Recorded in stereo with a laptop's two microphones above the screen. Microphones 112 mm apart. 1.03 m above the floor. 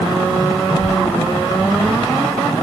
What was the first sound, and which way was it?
A child speaking, 30° left (ahead or behind).